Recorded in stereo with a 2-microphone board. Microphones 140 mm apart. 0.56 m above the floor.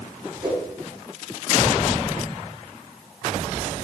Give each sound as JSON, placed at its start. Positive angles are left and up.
{"t": 0.4, "sound": "a whoosh", "side_deg": -40, "distance_m": 3.5}